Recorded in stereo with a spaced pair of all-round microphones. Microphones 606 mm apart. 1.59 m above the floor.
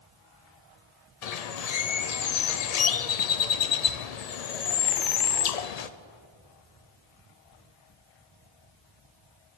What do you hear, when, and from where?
1.2 s a bird: 85° left, 0.6 m